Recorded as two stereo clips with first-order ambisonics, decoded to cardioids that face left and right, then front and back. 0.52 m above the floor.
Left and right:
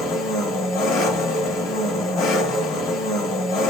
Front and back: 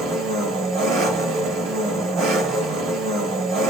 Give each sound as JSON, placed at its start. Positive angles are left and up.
{"t": 0.0, "sound": "an engine running", "azimuth_deg": 135, "distance_m": 3.0}